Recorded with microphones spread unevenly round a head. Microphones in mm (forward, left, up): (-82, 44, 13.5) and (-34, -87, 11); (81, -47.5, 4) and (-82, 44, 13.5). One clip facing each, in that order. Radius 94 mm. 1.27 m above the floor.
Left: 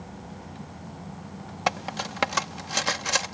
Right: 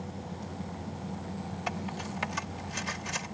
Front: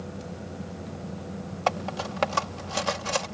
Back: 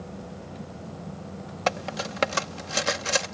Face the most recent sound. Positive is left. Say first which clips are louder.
# left 9 dB, even
turn(degrees=85)